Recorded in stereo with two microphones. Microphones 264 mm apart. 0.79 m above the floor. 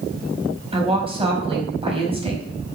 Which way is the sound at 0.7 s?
20° right (ahead or behind).